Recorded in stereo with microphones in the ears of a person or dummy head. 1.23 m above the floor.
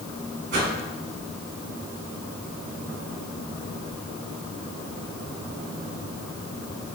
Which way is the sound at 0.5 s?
55° right (ahead or behind).